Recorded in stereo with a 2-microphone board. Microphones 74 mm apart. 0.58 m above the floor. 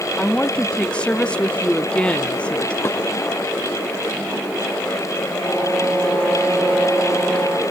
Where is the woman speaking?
15° left (ahead or behind), 0.8 m.